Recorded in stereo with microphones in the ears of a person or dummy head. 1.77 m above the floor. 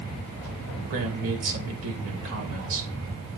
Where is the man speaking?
65° right (ahead or behind), 2.5 m.